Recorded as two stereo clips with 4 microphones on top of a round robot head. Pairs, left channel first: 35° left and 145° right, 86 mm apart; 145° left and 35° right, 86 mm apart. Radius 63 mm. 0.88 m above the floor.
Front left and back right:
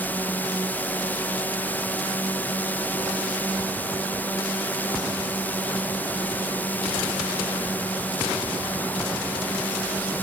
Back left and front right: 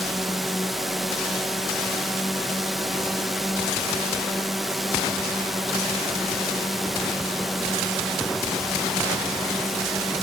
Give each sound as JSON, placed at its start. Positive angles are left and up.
{"t": 0.0, "sound": "a drone", "azimuth_deg": 55}